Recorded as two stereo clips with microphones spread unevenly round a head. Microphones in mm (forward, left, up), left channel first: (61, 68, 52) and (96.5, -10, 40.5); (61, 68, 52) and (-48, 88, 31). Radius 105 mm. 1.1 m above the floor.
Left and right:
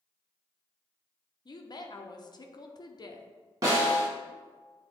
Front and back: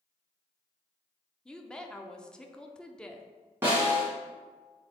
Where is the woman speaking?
80° left, 0.8 m.